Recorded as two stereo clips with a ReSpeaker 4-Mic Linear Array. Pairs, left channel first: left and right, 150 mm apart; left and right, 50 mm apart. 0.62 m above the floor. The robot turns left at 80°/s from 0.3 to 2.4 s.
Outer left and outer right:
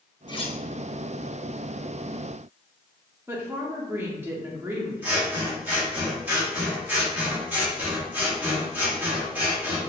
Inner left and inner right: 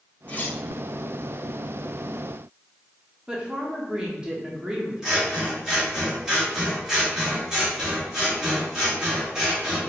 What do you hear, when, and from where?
0.3 s cutlery clinking: 30° left (ahead or behind), 0.5 m; by 0.6 s 50° left (ahead or behind), 0.5 m
3.3 s a woman speaking: 15° right (ahead or behind), 0.9 m
5.0 s scissors: 10° right (ahead or behind), 1.1 m